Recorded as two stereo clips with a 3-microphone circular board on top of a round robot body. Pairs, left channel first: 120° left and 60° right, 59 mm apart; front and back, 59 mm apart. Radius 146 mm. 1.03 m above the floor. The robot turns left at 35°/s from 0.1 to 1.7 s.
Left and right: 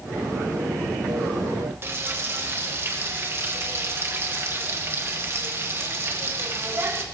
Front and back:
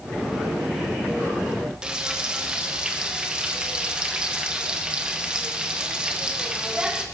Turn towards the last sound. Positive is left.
turn(degrees=-105)